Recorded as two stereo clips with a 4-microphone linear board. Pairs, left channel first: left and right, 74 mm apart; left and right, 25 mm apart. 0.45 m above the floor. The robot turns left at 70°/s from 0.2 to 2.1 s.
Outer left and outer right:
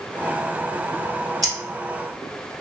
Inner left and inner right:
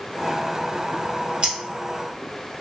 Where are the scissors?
50° right (ahead or behind), 1.3 m; by 1.5 s 45° right (ahead or behind), 1.3 m.